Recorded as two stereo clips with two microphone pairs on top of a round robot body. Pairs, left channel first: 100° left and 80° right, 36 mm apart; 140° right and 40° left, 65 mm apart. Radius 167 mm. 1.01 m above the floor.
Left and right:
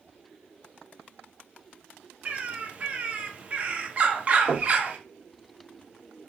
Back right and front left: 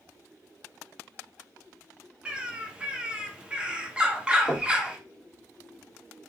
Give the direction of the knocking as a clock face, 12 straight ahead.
3 o'clock.